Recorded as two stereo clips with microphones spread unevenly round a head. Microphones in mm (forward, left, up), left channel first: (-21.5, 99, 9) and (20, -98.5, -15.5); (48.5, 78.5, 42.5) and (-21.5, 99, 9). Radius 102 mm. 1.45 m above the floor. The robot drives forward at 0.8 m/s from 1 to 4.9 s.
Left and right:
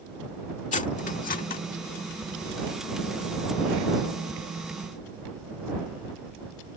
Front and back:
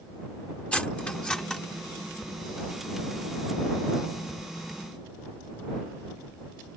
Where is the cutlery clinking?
50° left; by 1.6 s 60° left.